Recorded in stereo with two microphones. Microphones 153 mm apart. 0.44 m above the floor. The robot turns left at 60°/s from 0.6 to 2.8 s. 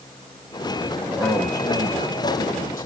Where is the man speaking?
175° right, 2.5 m; by 2.9 s 80° left, 2.5 m.